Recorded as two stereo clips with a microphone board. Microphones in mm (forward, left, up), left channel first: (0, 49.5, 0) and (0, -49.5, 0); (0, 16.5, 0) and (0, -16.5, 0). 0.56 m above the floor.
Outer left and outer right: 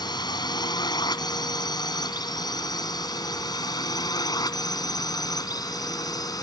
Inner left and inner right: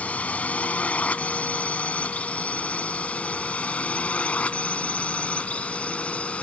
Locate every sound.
0.0 s a drone: 45° left (ahead or behind); by 6.4 s 40° left (ahead or behind)